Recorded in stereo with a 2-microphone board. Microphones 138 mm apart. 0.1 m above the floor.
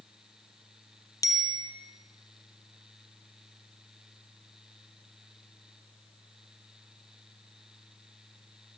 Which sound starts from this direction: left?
A bicycle bell, at 1.2 s.